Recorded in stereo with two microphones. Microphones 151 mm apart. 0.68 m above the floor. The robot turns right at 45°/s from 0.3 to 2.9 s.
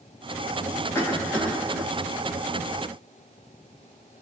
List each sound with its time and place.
0.9 s a cough: 15° left (ahead or behind), 0.8 m; by 1.9 s 5° left (ahead or behind), 0.8 m